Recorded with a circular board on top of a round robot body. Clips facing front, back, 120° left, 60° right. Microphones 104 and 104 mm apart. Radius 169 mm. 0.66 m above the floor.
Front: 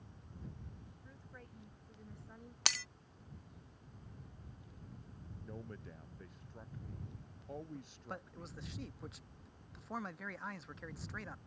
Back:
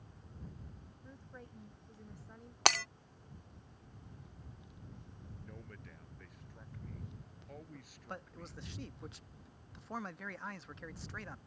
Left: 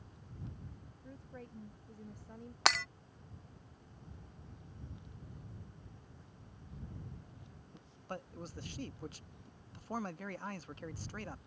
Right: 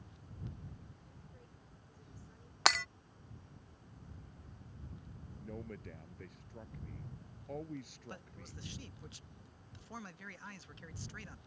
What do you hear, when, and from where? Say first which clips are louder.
1.0 s a woman speaking: back 6 dB, left 8 dB; 110° left; by 2.5 s 85° left
2.6 s breaking glass: back 12 dB, even; 150° right
5.4 s a man speaking: front 6 dB, right 9 dB; 65° right
7.7 s a man speaking: front 1 dB, left 2 dB; 90° left